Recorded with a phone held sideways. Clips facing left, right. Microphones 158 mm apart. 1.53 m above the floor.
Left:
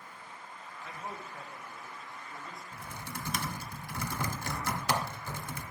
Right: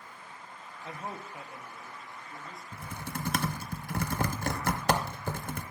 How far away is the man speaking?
About 0.6 m.